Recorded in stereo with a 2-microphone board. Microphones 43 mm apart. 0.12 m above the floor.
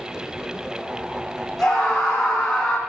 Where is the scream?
5° left (ahead or behind), 6 m.